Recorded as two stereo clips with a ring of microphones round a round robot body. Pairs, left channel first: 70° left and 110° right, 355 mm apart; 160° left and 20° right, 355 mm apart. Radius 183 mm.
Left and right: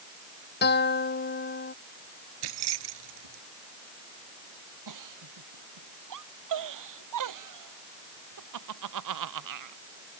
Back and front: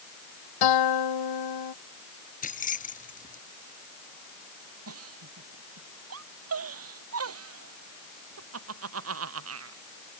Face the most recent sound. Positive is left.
turn(degrees=-75)